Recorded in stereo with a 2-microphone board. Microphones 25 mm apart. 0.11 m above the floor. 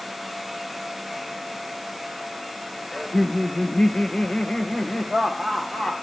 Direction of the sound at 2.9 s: 20° left (ahead or behind).